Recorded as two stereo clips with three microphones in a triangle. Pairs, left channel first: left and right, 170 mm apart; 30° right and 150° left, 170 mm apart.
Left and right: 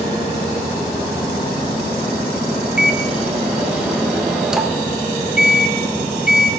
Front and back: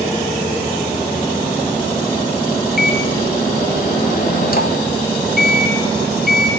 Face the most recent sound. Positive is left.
turn(degrees=-5)